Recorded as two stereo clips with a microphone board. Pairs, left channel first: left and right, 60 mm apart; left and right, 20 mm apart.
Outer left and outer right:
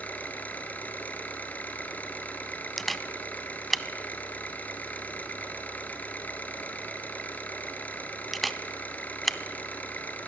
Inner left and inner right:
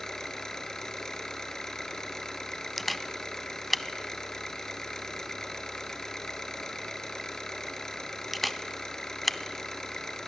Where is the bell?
No bell in this recording.